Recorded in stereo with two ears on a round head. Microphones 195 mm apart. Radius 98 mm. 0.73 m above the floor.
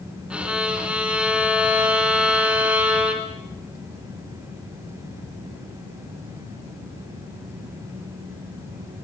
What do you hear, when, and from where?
0.3 s a violin: 5° right (ahead or behind), 2.5 m